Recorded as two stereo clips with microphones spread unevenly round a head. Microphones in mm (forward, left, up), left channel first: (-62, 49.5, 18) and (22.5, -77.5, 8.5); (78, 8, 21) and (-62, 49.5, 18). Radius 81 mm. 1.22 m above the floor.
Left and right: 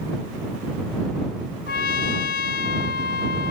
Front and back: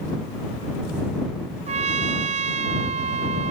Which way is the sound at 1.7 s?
125° left.